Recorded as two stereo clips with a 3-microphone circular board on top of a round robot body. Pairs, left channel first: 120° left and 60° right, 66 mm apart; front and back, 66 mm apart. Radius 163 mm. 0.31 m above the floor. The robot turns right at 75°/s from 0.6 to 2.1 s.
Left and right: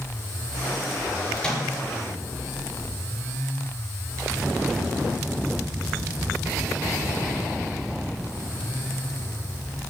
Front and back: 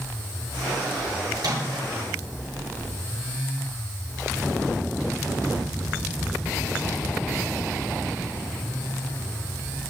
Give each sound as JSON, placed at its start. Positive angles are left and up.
{"t": 1.4, "sound": "a microwave", "azimuth_deg": -170, "distance_m": 8.0}